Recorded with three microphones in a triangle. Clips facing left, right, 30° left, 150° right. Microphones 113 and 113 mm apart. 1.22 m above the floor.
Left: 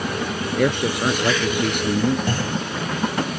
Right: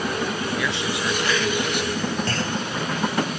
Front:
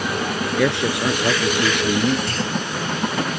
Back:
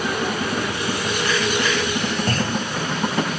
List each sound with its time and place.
0.6 s a man speaking: 50° left
2.3 s a clunk: 165° left